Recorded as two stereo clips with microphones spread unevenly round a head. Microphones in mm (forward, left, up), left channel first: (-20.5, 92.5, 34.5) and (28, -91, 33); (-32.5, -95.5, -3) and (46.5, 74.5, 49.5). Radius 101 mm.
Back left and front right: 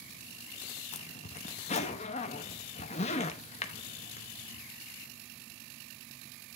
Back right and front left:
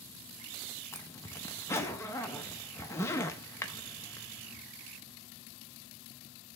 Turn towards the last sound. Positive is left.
turn(degrees=160)